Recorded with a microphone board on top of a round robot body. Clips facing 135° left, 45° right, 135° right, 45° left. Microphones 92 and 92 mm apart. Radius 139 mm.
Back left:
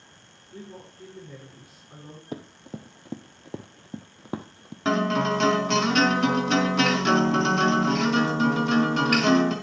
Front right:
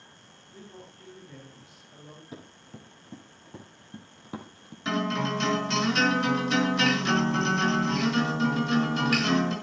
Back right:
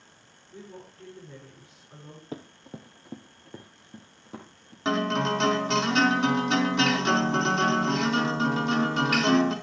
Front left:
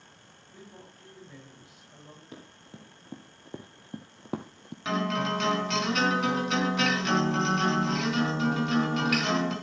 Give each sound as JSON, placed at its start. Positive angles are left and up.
{"t": 0.5, "sound": "a woman speaking", "azimuth_deg": 165, "distance_m": 6.0}
{"t": 2.3, "sound": "running footsteps", "azimuth_deg": 170, "distance_m": 1.1}
{"t": 4.8, "sound": "a guitar", "azimuth_deg": 170, "distance_m": 4.5}